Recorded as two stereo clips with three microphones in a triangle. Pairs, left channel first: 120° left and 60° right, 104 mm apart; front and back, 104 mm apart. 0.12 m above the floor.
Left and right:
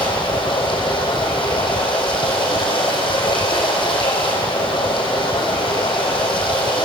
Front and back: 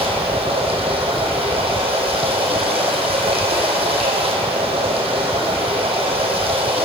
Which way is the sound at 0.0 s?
155° left.